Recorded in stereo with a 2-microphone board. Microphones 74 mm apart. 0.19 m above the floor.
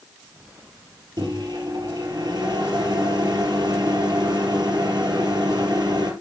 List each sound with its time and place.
1.2 s a microwave: 65° right (ahead or behind), 3 m